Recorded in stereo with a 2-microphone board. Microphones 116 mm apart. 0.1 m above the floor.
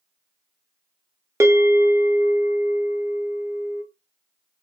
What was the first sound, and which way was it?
A bell, 25° right (ahead or behind).